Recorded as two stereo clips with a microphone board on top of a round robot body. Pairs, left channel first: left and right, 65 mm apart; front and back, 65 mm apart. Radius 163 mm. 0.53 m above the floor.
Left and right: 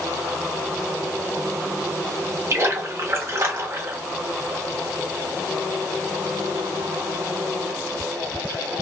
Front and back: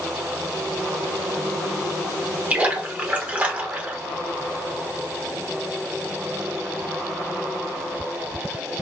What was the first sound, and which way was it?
A splash, 120° right.